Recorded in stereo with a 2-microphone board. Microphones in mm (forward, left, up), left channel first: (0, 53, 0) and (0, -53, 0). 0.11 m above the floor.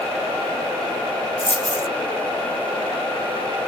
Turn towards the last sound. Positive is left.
turn(degrees=70)  # may be behind; listen again after turning